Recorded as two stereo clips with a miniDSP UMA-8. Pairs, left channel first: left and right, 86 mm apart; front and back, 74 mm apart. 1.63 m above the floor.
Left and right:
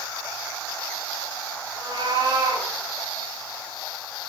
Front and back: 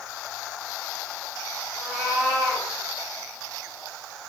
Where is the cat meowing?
95° right, 2 m.